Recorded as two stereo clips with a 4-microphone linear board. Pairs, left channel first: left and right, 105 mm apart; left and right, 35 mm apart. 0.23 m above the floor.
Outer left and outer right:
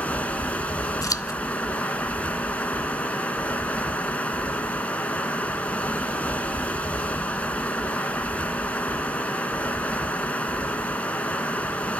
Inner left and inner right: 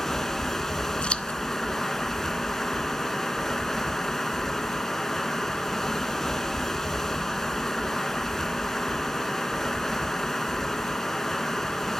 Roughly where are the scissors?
Left.